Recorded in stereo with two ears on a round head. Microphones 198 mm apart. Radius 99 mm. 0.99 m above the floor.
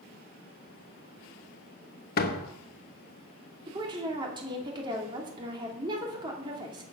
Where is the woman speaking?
25° right (ahead or behind), 2.5 m.